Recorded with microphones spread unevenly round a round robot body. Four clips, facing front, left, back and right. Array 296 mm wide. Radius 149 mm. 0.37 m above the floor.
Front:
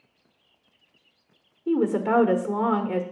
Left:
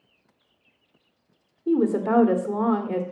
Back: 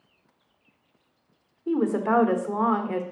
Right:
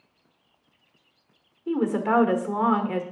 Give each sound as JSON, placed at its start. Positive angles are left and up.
{"t": 1.7, "sound": "a woman speaking", "azimuth_deg": 80, "distance_m": 1.3}